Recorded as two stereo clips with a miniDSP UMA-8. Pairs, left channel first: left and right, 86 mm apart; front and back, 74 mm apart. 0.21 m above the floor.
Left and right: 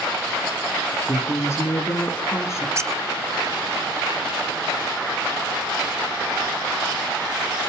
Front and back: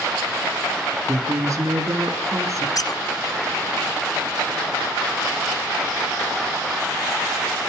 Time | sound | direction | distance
1.1 | a woman speaking | 145° left | 2.5 m
2.8 | a squeak | 35° right | 0.7 m